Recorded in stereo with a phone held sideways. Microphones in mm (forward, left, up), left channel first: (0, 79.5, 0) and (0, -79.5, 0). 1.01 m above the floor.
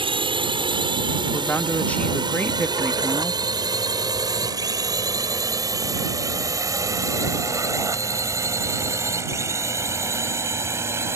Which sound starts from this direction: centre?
A woman speaking, at 1.3 s.